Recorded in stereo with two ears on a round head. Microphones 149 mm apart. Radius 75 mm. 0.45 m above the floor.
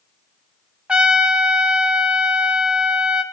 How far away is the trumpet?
About 1.7 m.